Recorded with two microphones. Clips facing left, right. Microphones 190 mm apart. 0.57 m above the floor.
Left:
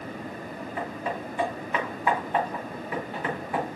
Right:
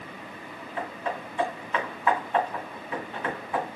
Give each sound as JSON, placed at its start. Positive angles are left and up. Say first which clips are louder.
{"t": 0.8, "sound": "hammering", "louder": "even", "side_deg": 10, "distance_m": 3.0}